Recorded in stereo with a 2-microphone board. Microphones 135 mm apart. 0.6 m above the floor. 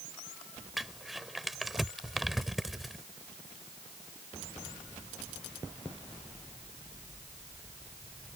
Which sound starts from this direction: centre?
Crumpling, at 0.8 s.